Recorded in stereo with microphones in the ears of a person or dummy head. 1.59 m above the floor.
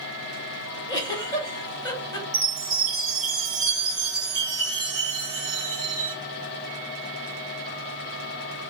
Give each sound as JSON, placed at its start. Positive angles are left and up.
{"t": 0.9, "sound": "a giggle", "side_deg": 25, "distance_m": 0.9}
{"t": 2.3, "sound": "a chime", "side_deg": -30, "distance_m": 1.5}